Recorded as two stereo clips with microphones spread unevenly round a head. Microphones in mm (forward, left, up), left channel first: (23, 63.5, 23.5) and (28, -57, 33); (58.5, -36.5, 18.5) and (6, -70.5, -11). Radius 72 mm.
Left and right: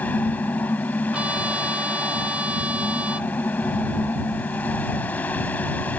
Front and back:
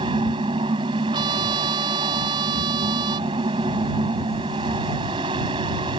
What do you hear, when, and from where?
0.0 s a fan: 170° left
1.1 s a trumpet: 170° right